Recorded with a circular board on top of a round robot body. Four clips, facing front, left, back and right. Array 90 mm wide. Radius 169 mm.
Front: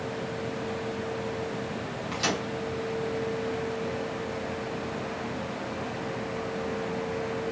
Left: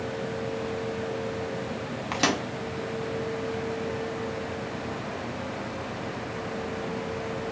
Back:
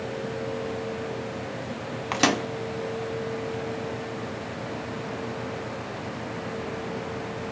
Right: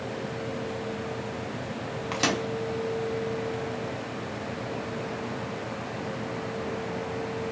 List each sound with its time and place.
2.1 s a microwave: 170° left, 0.7 m